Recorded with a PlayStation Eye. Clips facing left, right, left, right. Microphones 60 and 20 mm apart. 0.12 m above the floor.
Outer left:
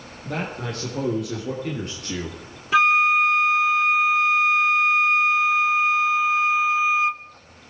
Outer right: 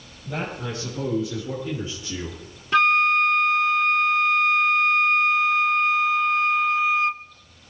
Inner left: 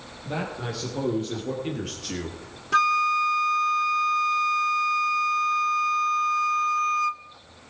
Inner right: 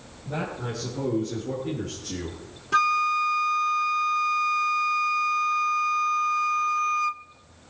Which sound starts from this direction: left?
A man speaking, at 0.2 s.